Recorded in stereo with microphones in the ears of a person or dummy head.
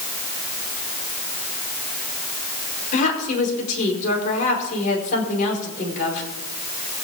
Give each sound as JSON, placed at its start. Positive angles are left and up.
{"t": 2.9, "sound": "a woman speaking", "side_deg": 40, "distance_m": 4.5}